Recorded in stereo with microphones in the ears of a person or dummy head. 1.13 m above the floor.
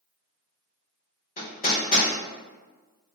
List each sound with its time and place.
1.4 s hammering: 45° left (ahead or behind), 1.1 m